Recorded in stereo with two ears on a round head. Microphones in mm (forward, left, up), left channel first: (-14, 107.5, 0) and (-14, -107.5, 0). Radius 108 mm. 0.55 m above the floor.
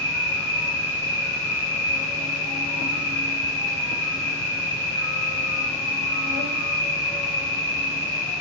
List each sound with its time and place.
0.0 s an insect: 65° left (ahead or behind), 0.9 m